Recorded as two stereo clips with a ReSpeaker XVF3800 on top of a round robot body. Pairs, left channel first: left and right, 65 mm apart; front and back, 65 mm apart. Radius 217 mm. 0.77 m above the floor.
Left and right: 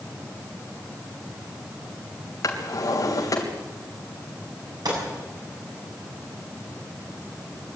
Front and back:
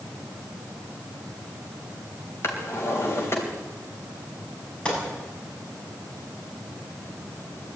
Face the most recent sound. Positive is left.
turn(degrees=-75)